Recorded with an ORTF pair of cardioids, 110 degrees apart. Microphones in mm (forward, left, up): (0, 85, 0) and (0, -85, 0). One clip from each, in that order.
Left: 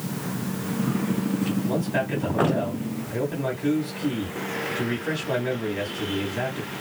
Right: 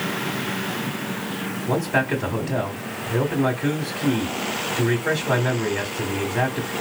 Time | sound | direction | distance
1.7 | a man speaking | 35° right | 2 m